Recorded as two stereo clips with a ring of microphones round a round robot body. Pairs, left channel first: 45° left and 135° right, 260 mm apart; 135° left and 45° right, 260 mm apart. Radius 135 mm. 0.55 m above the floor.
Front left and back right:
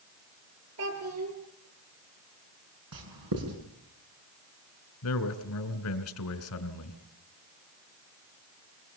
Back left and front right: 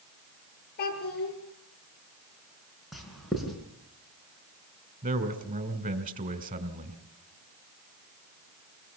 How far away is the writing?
About 6 m.